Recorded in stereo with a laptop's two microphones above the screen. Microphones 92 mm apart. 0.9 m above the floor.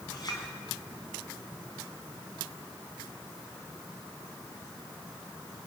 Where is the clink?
45° left (ahead or behind), 4 m.